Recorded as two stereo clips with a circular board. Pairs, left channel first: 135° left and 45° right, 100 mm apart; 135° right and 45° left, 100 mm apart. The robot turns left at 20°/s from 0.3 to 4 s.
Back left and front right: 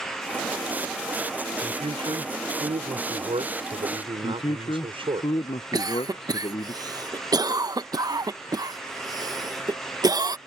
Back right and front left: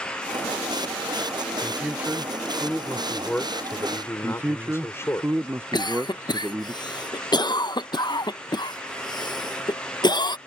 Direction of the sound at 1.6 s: 20° right.